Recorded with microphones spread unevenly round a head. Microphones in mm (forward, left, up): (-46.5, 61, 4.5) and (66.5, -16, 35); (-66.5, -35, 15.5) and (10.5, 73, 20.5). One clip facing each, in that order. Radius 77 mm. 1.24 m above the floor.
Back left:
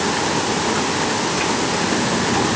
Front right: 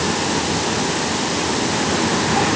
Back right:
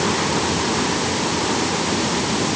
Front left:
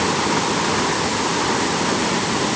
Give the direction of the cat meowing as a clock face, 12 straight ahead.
No cat meowing in this recording.